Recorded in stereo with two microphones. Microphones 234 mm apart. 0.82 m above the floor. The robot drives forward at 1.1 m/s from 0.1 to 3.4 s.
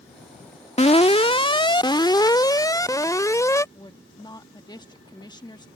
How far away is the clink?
I don't hear a clink.